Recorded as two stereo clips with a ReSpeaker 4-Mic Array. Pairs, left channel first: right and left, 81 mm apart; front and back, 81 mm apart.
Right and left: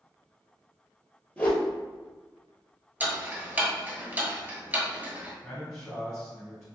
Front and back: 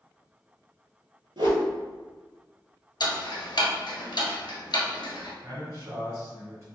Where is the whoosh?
160° right, 0.8 m.